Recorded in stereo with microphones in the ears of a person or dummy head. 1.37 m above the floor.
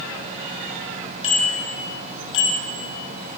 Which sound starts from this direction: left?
A bicycle bell, at 1.2 s.